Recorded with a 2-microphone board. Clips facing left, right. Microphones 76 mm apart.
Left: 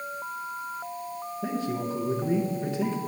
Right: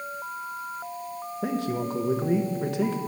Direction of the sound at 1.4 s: 65° right (ahead or behind).